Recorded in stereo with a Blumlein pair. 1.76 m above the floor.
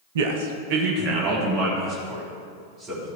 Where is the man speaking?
60° right, 1.0 m; by 3.1 s 30° right, 4.5 m.